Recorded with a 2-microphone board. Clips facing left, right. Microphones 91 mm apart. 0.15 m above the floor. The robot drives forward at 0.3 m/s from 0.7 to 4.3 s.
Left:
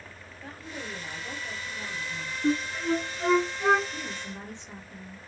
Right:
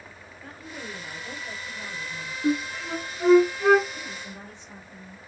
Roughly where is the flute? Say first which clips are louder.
Even; centre.